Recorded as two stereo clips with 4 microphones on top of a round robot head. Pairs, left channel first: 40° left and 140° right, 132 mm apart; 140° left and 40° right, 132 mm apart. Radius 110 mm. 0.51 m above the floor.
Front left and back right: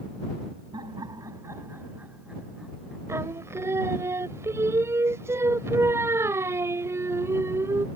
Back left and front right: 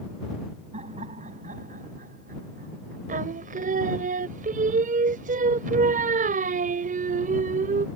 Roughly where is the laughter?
Right.